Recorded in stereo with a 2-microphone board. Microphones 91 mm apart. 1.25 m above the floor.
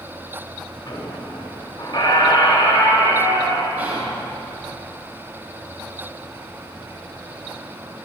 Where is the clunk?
I don't hear a clunk.